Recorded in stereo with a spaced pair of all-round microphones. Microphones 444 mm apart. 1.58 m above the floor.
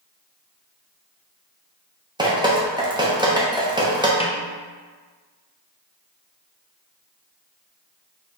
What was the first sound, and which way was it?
Dripping, 10° right (ahead or behind).